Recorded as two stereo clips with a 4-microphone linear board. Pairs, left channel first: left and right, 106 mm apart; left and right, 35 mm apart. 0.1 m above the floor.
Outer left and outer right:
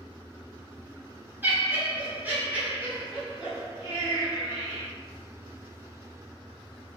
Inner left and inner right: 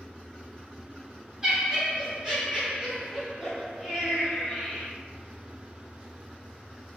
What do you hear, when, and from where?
1.4 s laughter: 20° right (ahead or behind), 1.3 m; by 4.9 s 5° right (ahead or behind), 2 m